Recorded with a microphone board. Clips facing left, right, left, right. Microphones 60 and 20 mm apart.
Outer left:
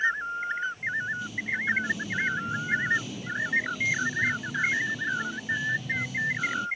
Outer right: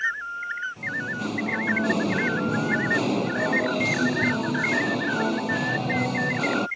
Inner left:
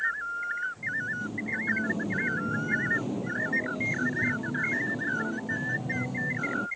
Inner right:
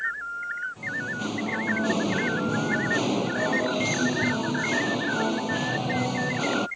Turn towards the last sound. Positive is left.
turn(degrees=-65)  # may be behind; listen again after turning